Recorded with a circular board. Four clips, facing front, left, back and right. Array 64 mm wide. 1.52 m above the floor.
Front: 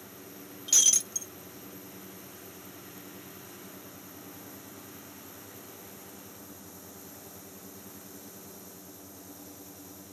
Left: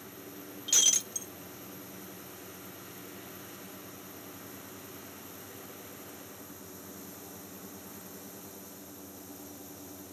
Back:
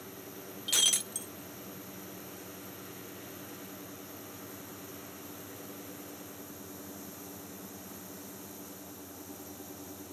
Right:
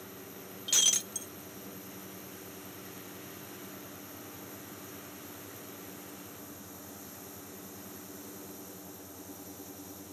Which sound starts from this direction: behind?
Breaking glass, at 0.7 s.